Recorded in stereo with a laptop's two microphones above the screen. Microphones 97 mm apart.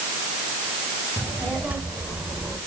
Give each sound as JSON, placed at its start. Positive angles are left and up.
{"t": 1.2, "sound": "a child speaking", "side_deg": -15, "distance_m": 3.0}